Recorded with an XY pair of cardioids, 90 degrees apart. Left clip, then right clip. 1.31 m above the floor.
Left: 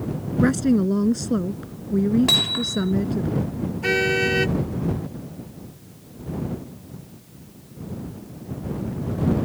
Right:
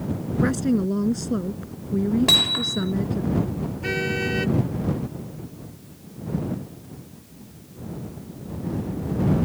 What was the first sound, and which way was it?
A woman speaking, 25° left.